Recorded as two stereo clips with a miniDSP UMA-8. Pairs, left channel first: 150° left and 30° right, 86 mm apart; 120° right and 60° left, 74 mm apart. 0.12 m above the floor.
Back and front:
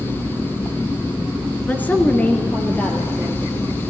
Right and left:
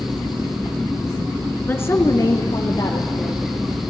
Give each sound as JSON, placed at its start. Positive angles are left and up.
{"t": 1.6, "sound": "a woman speaking", "azimuth_deg": -160, "distance_m": 1.2}